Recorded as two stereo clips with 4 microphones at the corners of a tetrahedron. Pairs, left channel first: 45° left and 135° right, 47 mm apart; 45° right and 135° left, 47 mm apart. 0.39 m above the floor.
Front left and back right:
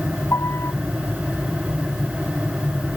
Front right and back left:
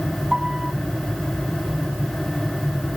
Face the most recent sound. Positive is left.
turn(degrees=60)